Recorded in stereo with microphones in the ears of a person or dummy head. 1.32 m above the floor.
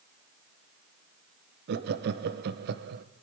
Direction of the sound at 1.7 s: 55° right (ahead or behind).